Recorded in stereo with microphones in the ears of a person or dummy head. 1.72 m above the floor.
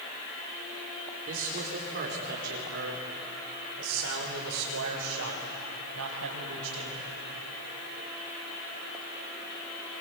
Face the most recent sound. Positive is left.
turn(degrees=-80)